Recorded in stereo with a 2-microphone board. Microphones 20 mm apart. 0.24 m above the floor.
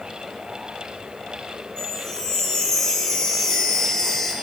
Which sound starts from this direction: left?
A chime, at 1.8 s.